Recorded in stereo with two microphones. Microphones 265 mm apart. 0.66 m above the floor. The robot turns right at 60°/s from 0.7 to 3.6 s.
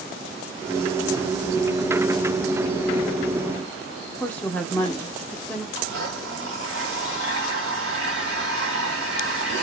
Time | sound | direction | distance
4.2 | a woman speaking | 5° left (ahead or behind) | 0.6 m
5.8 | a blender | 55° right (ahead or behind) | 1.1 m